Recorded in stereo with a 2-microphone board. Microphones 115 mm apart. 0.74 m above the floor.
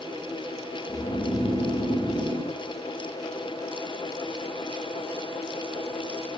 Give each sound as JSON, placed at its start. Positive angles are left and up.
{"t": 0.9, "sound": "snoring", "side_deg": 50, "distance_m": 0.7}